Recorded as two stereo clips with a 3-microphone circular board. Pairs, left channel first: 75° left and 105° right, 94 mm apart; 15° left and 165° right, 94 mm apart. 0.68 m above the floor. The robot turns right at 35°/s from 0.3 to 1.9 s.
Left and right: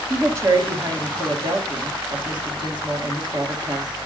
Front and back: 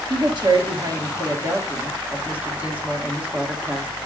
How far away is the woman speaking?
About 1.8 m.